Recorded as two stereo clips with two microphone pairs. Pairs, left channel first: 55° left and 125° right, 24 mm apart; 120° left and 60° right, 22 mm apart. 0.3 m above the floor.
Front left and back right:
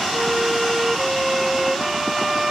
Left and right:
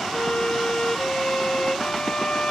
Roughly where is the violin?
Behind.